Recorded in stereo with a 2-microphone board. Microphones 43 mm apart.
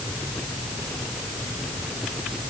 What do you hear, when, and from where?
Only background noise.